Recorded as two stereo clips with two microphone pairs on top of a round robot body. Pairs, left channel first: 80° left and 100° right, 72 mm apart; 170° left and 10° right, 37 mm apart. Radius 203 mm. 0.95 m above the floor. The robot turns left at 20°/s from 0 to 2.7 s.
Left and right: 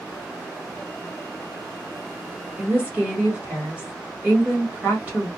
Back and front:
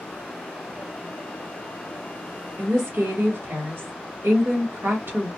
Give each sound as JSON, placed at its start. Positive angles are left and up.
{"t": 2.6, "sound": "a woman speaking", "azimuth_deg": -30, "distance_m": 1.3}